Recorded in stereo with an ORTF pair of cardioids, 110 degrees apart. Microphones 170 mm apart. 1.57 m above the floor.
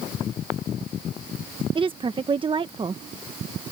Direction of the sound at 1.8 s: 30° right.